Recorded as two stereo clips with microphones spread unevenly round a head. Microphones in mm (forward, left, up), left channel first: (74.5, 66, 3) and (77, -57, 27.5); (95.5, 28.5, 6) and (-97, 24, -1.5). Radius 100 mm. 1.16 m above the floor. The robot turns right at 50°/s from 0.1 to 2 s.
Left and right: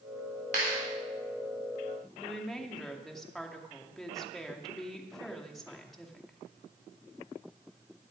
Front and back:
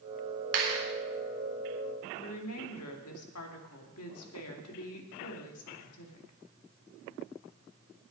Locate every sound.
0.5 s a clap: 145° right, 3.5 m; by 0.8 s 130° right, 3.5 m
2.2 s a woman speaking: 5° left, 2.5 m